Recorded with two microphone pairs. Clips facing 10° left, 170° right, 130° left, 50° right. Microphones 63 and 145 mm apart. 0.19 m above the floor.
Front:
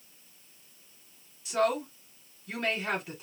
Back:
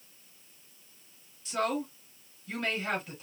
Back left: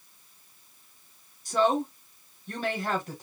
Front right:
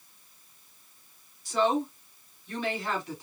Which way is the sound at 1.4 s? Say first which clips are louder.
Front 3 dB, back left 1 dB; 90° left.